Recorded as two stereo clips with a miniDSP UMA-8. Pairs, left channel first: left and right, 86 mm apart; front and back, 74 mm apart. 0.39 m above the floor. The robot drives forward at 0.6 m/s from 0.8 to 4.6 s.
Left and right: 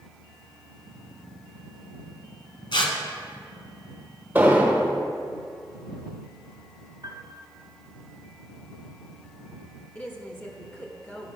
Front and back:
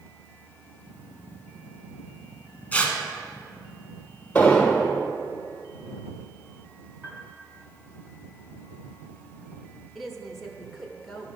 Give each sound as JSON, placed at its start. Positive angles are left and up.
{"t": 2.7, "sound": "tearing paper", "azimuth_deg": 70, "distance_m": 1.3}
{"t": 4.3, "sound": "an explosion", "azimuth_deg": -50, "distance_m": 1.4}
{"t": 7.0, "sound": "a piano", "azimuth_deg": -125, "distance_m": 1.7}
{"t": 9.9, "sound": "a woman speaking", "azimuth_deg": 75, "distance_m": 0.9}